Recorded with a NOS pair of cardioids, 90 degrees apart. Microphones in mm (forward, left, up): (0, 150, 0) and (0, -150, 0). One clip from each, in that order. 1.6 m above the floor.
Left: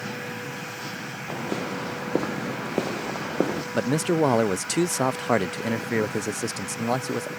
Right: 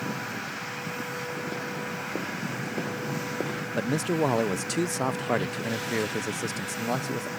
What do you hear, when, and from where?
1.3 s footsteps: 65° left
3.7 s a man speaking: 20° left